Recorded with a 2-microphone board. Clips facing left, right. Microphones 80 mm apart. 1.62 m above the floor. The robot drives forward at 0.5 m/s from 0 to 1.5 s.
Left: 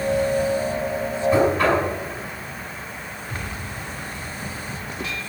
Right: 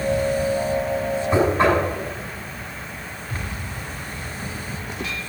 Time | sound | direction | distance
1.3 | knocking | 25° right (ahead or behind) | 6 m